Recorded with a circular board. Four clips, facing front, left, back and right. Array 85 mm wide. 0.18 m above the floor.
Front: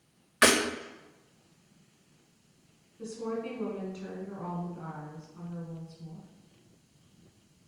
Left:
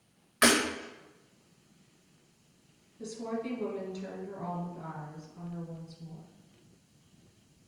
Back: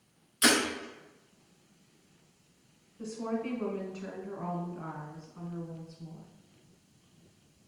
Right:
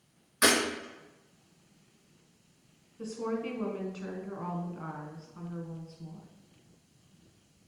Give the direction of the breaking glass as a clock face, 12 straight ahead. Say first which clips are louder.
Left 1 dB, front 3 dB; 11 o'clock.